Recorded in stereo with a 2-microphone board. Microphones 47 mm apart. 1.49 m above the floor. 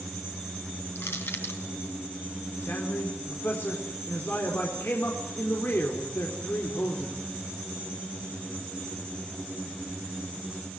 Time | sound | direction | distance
0.9 | crushing | 65° left (ahead or behind) | 3 m
2.6 | a man speaking | 55° left (ahead or behind) | 4 m